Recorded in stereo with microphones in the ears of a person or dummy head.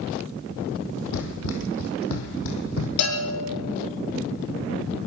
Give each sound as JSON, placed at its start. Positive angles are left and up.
{"t": 1.1, "sound": "running footsteps", "side_deg": 70, "distance_m": 3.0}
{"t": 3.0, "sound": "a bell", "side_deg": 70, "distance_m": 6.0}